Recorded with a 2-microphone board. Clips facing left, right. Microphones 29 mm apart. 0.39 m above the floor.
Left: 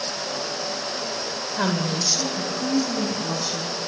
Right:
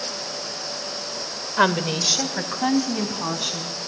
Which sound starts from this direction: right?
A woman speaking, at 1.6 s.